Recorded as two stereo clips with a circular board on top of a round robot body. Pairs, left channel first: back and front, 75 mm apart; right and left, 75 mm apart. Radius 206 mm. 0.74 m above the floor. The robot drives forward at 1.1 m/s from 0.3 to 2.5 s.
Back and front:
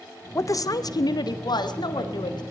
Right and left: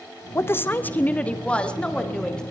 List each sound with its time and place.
0.3 s a woman speaking: 135° right, 0.9 m; by 2.4 s 170° right, 3 m